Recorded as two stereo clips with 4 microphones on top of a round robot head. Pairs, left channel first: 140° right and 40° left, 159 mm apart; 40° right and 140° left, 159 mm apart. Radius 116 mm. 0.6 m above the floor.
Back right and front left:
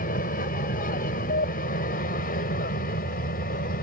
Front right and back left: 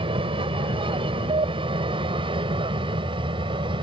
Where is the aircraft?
165° right.